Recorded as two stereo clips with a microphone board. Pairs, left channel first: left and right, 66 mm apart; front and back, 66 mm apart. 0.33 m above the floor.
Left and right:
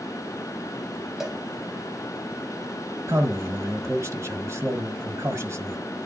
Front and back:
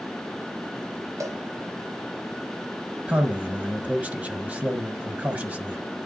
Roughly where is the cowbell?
Behind.